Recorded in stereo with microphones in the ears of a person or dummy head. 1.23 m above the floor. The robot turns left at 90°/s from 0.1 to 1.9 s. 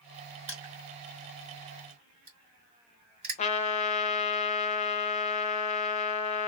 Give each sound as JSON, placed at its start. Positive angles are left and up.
{"t": 0.5, "sound": "crushing", "side_deg": -15, "distance_m": 2.0}
{"t": 3.4, "sound": "a trumpet", "side_deg": 40, "distance_m": 0.6}